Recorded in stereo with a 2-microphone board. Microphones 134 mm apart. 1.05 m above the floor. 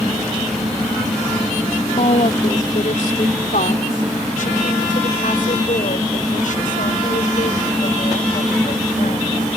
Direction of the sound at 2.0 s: 65° left (ahead or behind).